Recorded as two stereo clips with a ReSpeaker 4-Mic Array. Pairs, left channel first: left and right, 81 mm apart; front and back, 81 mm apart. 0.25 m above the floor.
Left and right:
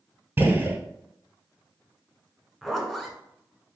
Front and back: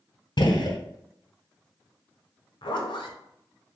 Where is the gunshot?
25° right, 0.5 m.